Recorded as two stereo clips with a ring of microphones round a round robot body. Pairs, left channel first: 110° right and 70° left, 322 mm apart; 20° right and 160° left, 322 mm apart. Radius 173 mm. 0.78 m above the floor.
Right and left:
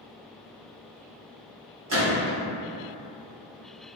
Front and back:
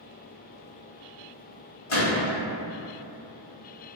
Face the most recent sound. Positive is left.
turn(degrees=20)